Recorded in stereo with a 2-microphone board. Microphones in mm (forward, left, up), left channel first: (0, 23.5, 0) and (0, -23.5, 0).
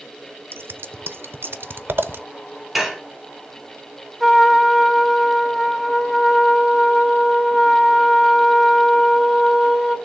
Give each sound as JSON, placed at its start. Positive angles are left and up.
{"t": 0.5, "sound": "scissors", "side_deg": -60, "distance_m": 0.6}
{"t": 2.8, "sound": "dishes clattering", "side_deg": -5, "distance_m": 1.6}
{"t": 4.2, "sound": "a trumpet", "side_deg": 0, "distance_m": 1.5}